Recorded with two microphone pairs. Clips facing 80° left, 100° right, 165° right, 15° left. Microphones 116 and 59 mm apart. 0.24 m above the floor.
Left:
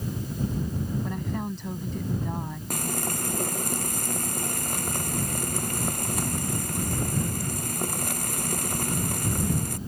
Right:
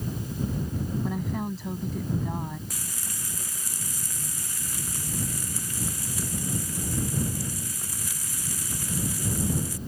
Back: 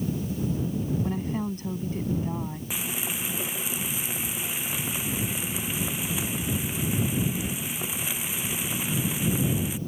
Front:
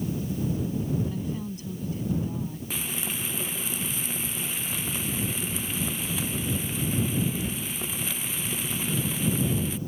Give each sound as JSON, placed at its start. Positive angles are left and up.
{"t": 1.0, "sound": "a woman speaking", "azimuth_deg": 175}
{"t": 2.7, "sound": "frying", "azimuth_deg": 115}